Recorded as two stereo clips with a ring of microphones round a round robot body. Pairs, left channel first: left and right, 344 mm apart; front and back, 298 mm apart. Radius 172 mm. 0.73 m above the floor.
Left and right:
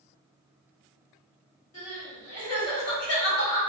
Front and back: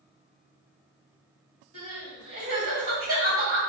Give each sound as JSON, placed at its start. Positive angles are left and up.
{"t": 1.7, "sound": "crying", "azimuth_deg": 135, "distance_m": 1.9}